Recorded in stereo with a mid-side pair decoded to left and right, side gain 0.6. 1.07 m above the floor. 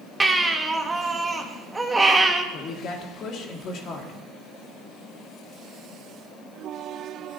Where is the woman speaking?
50° left, 2.5 m.